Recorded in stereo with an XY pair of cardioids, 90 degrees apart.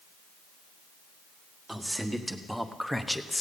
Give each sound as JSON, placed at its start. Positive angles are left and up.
{"t": 1.7, "sound": "a man speaking", "azimuth_deg": -15, "distance_m": 1.7}